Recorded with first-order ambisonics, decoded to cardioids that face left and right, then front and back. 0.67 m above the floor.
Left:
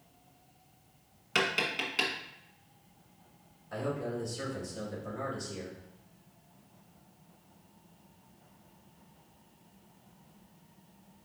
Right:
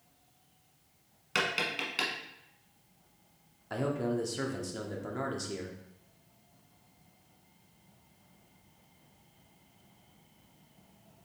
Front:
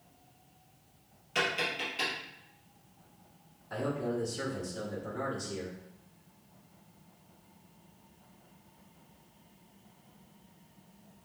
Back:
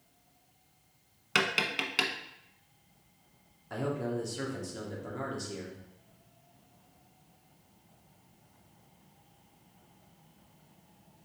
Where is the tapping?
Straight behind, 0.9 m.